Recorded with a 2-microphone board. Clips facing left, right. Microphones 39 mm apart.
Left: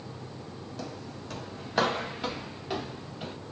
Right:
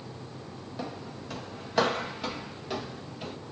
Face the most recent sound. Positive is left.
turn(degrees=15)  # may be behind; listen again after turning